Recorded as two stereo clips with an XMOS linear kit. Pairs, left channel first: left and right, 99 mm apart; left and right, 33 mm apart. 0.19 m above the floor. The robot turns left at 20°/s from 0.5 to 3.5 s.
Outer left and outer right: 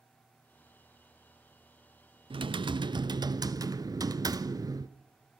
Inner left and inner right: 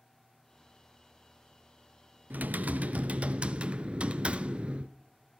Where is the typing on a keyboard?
60° right (ahead or behind), 0.6 m; by 4.9 s 40° right (ahead or behind), 0.6 m.